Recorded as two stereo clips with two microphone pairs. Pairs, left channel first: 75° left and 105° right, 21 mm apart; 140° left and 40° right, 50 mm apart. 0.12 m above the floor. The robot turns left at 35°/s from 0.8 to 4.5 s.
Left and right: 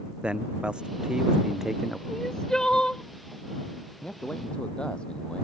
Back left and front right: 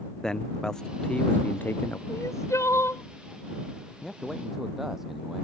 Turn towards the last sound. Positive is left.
turn(degrees=45)